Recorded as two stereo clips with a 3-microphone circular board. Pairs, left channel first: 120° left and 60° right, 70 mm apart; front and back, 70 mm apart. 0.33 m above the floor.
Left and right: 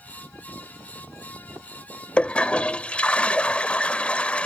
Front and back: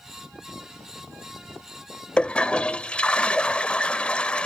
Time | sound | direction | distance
2.2 | a toilet flushing | 60° left | ?